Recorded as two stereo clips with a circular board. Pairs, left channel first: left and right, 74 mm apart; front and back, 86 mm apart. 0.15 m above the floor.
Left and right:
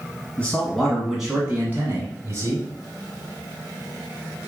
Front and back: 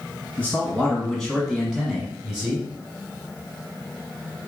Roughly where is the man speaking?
Ahead left.